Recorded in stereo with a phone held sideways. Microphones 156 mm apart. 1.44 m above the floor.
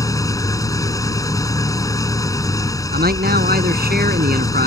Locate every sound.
0.0 s an engine running: 20° left (ahead or behind)
2.9 s a man speaking: 75° right (ahead or behind)